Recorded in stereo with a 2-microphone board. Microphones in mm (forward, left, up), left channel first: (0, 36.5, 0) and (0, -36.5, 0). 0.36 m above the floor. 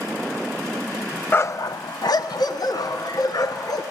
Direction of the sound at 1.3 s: 30° left (ahead or behind).